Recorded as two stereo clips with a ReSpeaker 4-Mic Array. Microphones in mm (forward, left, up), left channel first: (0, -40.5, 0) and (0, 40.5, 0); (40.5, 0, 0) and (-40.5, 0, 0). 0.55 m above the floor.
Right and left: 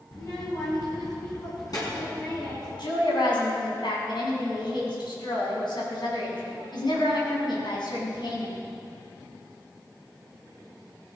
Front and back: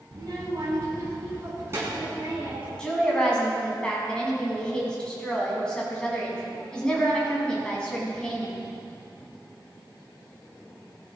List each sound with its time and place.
0.1 s a child speaking: 140° right, 3.5 m; by 2.7 s 120° right, 6 m
2.8 s a woman speaking: 80° right, 5 m